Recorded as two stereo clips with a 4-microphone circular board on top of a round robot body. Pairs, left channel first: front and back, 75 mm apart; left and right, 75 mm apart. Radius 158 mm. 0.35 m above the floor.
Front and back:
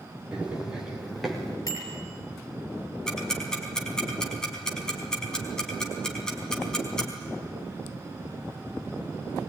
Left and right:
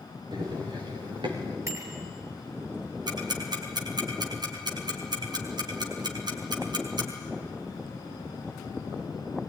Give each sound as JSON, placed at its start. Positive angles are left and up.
{"t": 0.3, "sound": "running footsteps", "azimuth_deg": -105, "distance_m": 4.0}
{"t": 1.7, "sound": "a bicycle bell", "azimuth_deg": -40, "distance_m": 7.0}
{"t": 3.1, "sound": "ticking", "azimuth_deg": -80, "distance_m": 4.5}